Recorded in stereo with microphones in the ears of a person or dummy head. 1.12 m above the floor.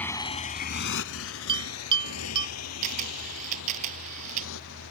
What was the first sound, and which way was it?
A motorcycle, 10° left (ahead or behind).